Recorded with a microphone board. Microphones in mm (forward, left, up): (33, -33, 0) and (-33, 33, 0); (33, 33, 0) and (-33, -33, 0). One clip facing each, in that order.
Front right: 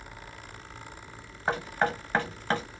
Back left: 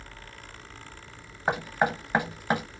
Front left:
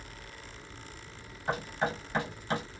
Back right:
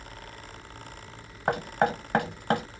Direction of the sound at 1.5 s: 150° right.